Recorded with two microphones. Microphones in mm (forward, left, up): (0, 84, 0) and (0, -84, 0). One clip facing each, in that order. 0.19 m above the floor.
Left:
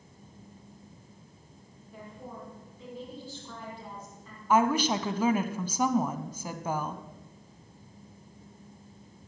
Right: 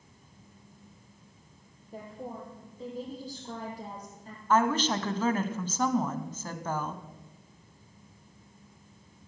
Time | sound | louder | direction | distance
1.9 | a woman speaking | right 4 dB | 40° right (ahead or behind) | 6 m
4.5 | a woman speaking | left 1 dB | 10° left (ahead or behind) | 1.2 m